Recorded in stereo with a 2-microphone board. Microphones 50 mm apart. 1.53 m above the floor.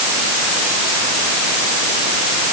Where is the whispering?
I don't hear whispering.